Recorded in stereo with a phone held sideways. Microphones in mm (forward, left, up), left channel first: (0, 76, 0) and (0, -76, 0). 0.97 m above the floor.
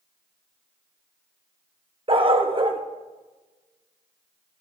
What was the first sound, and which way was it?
A dog barking, 40° right (ahead or behind).